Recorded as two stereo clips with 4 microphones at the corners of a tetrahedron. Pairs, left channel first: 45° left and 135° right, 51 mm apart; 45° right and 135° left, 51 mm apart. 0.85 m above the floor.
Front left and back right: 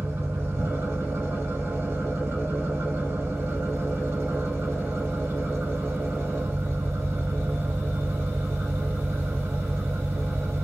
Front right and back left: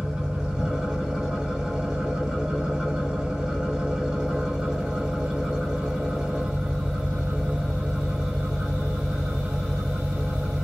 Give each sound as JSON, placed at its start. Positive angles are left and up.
{"t": 0.0, "sound": "an engine running", "azimuth_deg": -150, "distance_m": 0.9}